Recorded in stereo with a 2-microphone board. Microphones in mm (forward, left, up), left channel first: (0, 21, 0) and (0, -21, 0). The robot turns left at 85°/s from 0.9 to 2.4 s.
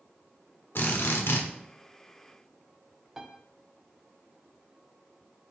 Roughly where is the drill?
Behind left.